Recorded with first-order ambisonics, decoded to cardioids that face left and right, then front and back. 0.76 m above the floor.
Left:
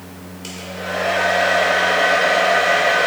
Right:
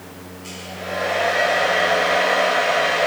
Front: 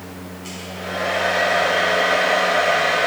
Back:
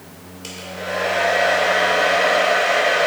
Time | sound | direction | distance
0.4 | a hair dryer | 140° left | 2 m